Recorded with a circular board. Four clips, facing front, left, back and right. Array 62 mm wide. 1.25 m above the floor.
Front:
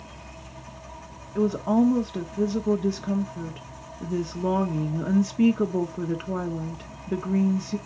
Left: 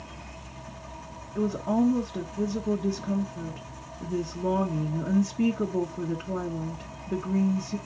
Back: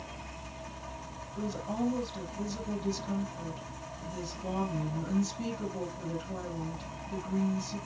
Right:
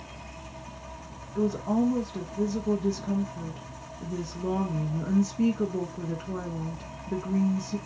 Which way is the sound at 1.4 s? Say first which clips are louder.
Even, front 13 dB; 10° left.